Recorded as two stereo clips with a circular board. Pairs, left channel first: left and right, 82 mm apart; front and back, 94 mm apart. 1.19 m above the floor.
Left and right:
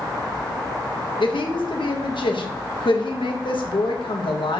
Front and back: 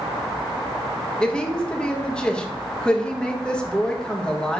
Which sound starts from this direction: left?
A woman speaking, at 1.2 s.